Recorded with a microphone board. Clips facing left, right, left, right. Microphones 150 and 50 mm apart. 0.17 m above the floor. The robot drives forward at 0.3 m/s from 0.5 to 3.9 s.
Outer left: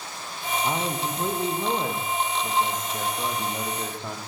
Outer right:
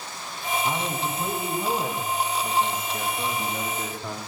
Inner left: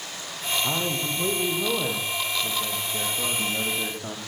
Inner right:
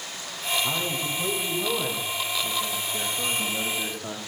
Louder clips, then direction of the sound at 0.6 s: Outer left 3 dB, inner left 1 dB; 25° left (ahead or behind).